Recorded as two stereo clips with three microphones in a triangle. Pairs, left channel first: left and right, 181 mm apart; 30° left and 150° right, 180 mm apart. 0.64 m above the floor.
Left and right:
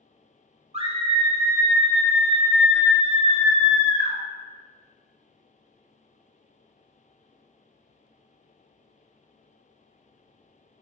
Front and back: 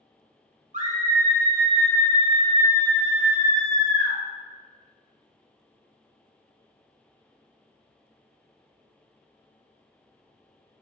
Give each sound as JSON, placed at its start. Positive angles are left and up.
{"t": 0.7, "sound": "a scream", "azimuth_deg": -125, "distance_m": 0.8}